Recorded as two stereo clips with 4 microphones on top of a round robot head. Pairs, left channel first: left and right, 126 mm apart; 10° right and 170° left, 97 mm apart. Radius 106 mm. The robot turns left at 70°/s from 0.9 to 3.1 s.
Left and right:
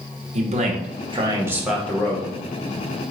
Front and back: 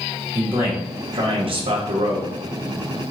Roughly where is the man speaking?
Behind right.